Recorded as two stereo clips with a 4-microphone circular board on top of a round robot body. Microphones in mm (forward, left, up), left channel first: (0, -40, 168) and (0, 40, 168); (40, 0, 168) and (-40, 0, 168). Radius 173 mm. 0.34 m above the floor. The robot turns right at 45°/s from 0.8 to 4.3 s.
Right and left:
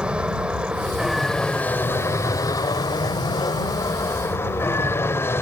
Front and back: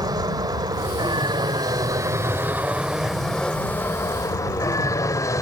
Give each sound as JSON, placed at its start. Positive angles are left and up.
{"t": 0.0, "sound": "an aircraft", "azimuth_deg": 165}